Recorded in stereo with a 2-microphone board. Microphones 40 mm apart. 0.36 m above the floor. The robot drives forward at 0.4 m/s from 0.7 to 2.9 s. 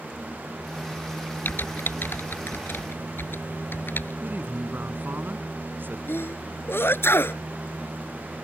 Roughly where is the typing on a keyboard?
Left.